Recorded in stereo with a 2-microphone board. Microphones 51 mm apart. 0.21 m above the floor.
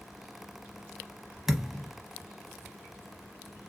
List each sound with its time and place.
1.5 s a thud: 10° right (ahead or behind), 0.7 m